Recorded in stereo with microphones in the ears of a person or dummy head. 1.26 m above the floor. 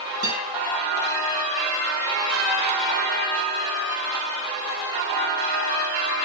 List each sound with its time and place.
0.2 s a guitar: 90° right, 8 m